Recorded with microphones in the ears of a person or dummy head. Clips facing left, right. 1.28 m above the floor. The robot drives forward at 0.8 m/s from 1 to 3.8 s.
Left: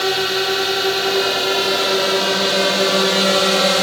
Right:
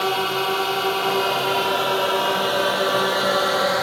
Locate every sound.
0.0 s a drone: 30° left (ahead or behind); by 3.8 s 45° left (ahead or behind)